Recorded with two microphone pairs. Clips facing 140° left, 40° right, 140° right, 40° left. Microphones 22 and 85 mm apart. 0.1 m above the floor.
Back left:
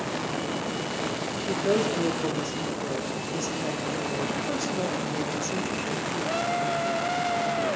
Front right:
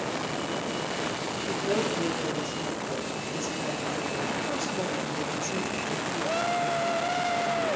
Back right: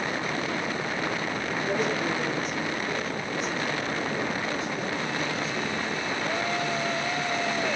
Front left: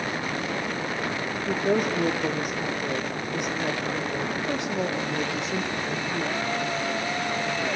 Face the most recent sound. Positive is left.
turn(degrees=50)